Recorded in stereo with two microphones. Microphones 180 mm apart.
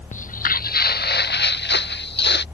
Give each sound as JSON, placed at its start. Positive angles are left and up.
{"t": 0.1, "sound": "footsteps", "side_deg": 45}